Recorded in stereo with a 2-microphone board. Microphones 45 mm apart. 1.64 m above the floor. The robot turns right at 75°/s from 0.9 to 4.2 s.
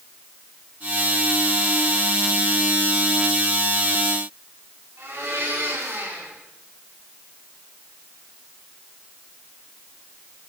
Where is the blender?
70° right (ahead or behind), 8 m.